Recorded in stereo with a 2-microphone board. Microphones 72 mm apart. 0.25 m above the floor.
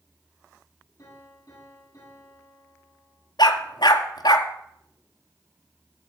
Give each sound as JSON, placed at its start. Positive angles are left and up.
{"t": 1.0, "sound": "a piano", "side_deg": 50, "distance_m": 10.0}
{"t": 3.4, "sound": "a dog barking", "side_deg": 85, "distance_m": 1.2}